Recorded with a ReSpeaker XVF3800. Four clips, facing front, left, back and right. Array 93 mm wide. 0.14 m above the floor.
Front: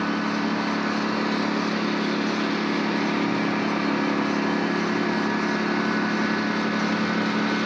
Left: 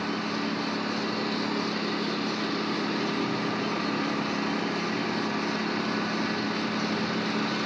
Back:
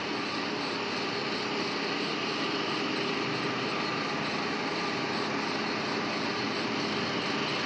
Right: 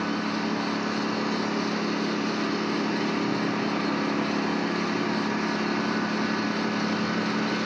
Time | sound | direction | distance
0.0 | a lawn mower | 15° right | ?